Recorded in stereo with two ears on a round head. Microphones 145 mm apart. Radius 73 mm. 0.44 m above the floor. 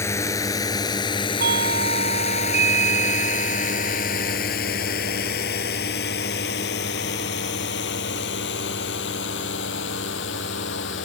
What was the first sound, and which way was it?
A drone, 15° left (ahead or behind).